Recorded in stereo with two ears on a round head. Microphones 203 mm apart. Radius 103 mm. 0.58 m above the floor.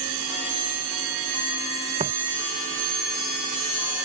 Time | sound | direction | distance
2.0 | footsteps | 25° right (ahead or behind) | ?